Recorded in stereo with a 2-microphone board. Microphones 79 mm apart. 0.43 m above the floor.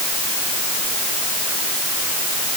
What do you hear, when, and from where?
Only background noise.